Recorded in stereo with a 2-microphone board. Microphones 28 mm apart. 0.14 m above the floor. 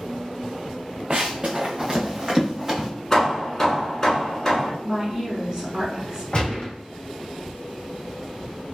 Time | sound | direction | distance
1.1 | running footsteps | 30° right (ahead or behind) | 0.7 m
3.1 | hammering | 15° left (ahead or behind) | 1.5 m
4.8 | a woman speaking | 25° right (ahead or behind) | 1.5 m
6.3 | a gunshot | 35° left (ahead or behind) | 2.0 m